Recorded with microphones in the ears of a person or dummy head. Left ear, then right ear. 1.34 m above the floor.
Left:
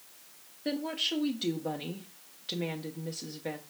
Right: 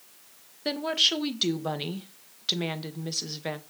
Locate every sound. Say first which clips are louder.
0.7 s a woman speaking: right 8 dB; 30° right (ahead or behind), 0.8 m